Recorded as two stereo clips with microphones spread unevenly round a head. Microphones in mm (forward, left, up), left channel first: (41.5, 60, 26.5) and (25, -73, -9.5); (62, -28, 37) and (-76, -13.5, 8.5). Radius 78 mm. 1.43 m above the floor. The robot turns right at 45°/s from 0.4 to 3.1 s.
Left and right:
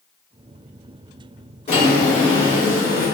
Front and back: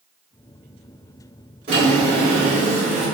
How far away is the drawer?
About 1.7 m.